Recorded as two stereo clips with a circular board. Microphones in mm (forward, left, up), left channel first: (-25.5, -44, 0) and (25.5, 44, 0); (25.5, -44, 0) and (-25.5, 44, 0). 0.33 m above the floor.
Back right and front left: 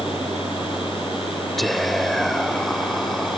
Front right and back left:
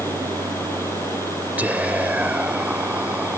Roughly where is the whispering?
Behind left.